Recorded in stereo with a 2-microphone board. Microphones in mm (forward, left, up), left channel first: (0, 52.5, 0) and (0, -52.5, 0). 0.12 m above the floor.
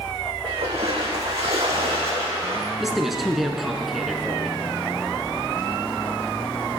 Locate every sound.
0.4 s a splash: 75° right (ahead or behind), 2.5 m
2.8 s a man speaking: centre (ahead or behind), 1.1 m